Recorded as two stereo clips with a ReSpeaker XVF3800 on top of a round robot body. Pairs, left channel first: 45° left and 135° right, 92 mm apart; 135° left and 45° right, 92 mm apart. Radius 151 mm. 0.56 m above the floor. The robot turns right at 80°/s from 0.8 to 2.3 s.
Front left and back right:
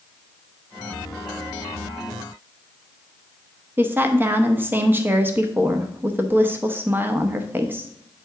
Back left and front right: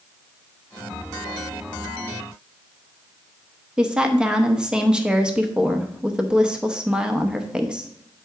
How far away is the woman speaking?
About 0.9 m.